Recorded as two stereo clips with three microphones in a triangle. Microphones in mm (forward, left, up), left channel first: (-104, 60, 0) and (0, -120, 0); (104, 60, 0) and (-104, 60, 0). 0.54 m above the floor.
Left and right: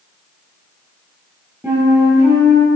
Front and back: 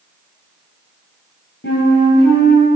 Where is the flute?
20° left, 2.5 m.